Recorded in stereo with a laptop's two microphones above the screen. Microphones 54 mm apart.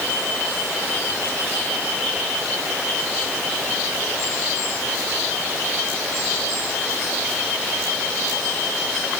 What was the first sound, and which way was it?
Only background noise.